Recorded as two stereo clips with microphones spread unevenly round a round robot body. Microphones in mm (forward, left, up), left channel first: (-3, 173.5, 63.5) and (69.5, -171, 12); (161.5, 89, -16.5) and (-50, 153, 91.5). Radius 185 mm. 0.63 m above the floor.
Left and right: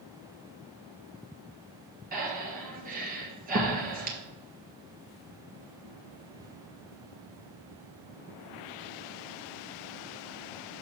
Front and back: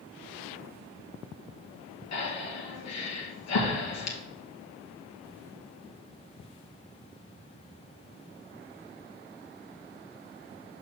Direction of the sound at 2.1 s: 10° right.